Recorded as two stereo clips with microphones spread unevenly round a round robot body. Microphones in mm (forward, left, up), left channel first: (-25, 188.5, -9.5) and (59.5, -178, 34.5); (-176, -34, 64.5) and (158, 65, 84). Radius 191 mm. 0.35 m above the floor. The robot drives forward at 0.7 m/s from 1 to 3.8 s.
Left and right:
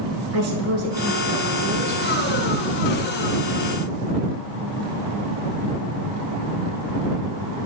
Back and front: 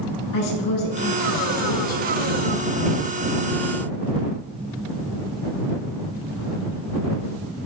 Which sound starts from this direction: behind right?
A woman speaking, at 0.3 s.